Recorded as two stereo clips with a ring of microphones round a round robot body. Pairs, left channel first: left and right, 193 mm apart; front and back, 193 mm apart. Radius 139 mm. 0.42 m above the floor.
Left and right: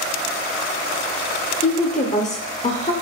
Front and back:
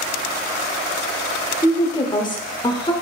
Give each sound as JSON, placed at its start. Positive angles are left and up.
{"t": 1.6, "sound": "a woman speaking", "azimuth_deg": 55, "distance_m": 1.1}